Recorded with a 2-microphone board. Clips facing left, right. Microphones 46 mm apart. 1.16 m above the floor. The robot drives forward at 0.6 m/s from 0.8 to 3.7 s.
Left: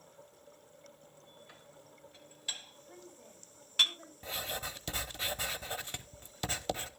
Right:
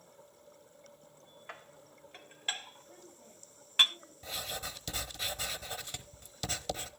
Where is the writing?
25° left (ahead or behind), 1.0 m.